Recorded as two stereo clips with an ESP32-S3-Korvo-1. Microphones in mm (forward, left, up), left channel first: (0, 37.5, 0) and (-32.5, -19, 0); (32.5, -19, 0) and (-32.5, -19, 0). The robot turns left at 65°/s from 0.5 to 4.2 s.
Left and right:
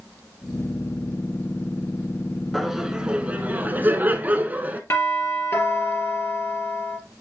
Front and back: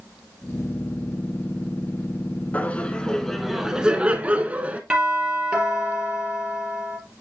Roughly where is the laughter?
Ahead right.